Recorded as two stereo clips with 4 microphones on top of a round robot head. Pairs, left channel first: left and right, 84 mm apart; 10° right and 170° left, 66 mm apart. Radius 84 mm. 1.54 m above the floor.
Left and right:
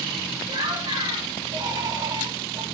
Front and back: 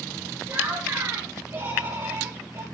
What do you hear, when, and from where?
0.5 s laughter: 125° right, 6 m; by 2.6 s 135° right, 3.5 m